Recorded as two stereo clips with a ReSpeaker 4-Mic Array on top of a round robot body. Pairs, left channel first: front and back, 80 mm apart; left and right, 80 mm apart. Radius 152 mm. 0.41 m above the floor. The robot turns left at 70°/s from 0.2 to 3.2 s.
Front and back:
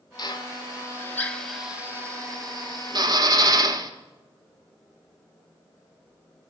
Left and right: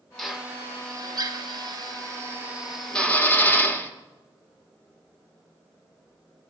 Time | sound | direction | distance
0.2 | a drill | 5° left | 1.4 m